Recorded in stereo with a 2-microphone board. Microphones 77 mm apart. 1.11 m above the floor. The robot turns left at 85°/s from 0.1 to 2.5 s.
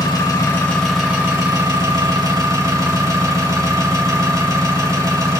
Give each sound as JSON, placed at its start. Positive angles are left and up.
{"t": 0.0, "sound": "an engine running", "azimuth_deg": 70, "distance_m": 1.9}